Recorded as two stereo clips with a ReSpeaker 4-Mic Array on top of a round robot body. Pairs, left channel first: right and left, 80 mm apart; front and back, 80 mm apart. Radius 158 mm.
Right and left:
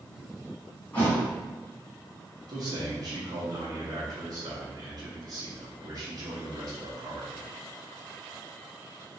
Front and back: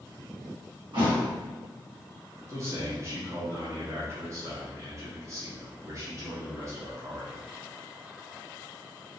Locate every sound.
0.9 s a thud: 165° right, 1.8 m
2.5 s a man speaking: 130° left, 1.4 m